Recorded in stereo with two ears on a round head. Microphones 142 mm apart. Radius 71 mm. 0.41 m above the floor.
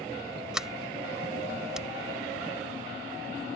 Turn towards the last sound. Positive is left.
turn(degrees=-5)  # may be behind; listen again after turning